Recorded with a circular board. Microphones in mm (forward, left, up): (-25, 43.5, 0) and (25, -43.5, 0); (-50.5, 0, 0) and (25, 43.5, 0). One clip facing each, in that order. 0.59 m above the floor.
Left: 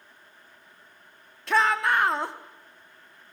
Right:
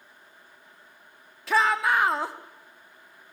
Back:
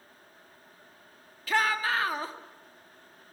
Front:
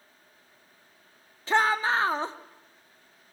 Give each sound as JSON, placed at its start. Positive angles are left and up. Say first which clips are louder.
{"t": 1.5, "sound": "a shout", "louder": "even, front 3 dB", "azimuth_deg": 25, "distance_m": 0.6}